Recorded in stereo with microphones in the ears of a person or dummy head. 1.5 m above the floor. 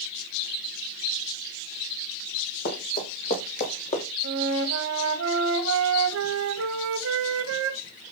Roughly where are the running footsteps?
Left.